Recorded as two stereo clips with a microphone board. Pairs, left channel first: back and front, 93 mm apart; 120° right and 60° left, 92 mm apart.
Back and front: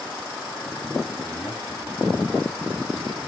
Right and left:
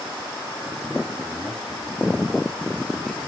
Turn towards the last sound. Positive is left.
turn(degrees=150)